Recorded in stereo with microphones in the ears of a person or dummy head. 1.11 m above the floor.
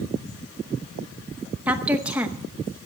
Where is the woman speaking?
5° right (ahead or behind), 0.8 m.